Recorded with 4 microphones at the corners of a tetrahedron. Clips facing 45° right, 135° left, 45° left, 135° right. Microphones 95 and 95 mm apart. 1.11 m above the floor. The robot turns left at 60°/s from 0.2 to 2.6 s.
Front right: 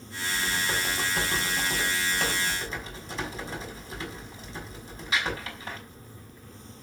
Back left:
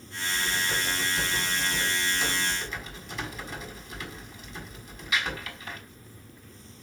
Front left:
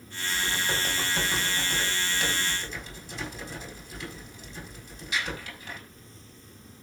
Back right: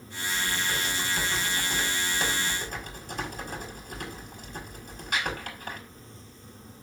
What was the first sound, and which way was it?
Typing on a keyboard, 35° left.